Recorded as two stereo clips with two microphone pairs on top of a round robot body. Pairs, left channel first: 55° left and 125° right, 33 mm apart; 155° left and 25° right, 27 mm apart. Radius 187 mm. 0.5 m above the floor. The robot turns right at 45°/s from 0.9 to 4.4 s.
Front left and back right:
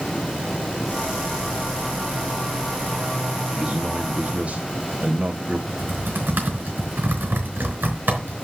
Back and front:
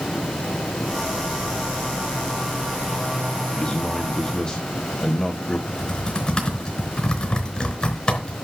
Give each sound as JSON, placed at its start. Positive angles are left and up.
{"t": 3.5, "sound": "a man speaking", "azimuth_deg": 155, "distance_m": 1.7}
{"t": 5.7, "sound": "typing on a keyboard", "azimuth_deg": -150, "distance_m": 4.0}